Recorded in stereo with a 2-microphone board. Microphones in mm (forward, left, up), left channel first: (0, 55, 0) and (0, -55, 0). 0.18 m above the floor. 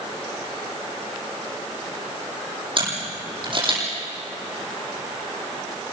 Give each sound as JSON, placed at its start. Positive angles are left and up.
{"t": 2.8, "sound": "a camera shutter", "side_deg": -45, "distance_m": 8.5}